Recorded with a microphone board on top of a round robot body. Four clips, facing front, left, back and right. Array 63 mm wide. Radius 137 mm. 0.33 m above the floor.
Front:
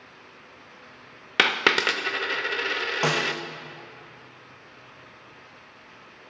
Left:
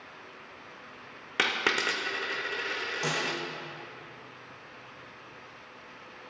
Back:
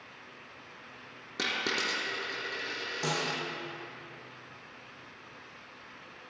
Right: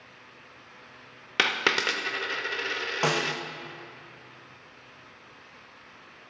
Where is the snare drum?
45° right, 0.8 m.